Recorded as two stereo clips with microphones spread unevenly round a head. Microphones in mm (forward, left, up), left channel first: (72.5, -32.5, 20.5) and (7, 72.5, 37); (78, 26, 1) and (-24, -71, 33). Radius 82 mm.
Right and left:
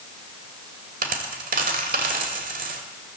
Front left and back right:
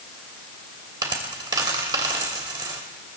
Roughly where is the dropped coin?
Behind.